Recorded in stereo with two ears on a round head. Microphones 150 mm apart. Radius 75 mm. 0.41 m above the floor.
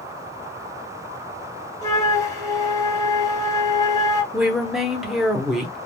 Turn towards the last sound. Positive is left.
turn(degrees=0)  # may be behind; listen again after turning